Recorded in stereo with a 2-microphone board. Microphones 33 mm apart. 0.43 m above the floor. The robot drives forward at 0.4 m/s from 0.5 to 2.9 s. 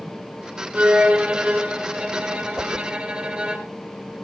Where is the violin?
40° right (ahead or behind), 3.5 m; by 3.6 s 35° right (ahead or behind), 4 m.